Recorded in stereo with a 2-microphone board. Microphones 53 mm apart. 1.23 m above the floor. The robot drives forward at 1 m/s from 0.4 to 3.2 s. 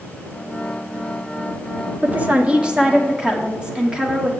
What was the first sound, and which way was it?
A woman speaking, 30° right (ahead or behind).